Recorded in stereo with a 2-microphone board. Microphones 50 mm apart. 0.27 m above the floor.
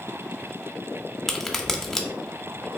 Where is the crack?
10° left (ahead or behind), 0.5 m.